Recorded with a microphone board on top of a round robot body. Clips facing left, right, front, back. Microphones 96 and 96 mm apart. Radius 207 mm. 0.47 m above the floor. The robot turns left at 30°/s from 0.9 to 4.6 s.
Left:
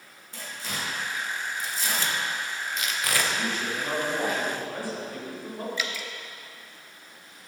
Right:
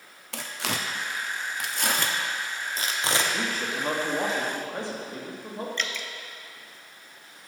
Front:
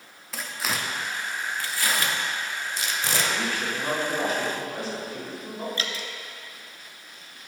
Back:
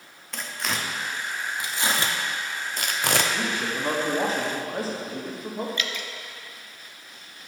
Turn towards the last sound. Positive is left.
turn(degrees=10)